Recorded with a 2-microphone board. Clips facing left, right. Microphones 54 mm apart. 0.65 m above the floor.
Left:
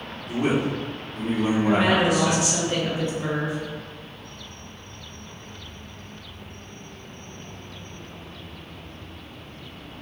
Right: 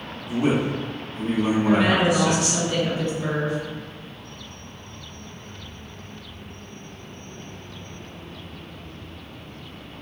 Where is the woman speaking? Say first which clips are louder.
Right 1 dB; 20° left (ahead or behind), 0.6 m.